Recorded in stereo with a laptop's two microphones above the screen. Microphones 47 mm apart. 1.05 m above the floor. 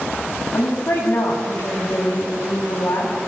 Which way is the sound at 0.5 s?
55° left (ahead or behind).